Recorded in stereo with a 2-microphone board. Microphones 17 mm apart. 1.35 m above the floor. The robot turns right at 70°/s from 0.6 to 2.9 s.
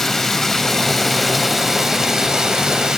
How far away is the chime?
No chime in this recording.